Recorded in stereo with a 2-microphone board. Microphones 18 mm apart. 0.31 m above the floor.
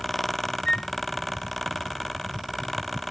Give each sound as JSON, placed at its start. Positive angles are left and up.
{"t": 0.7, "sound": "a flute", "side_deg": 50}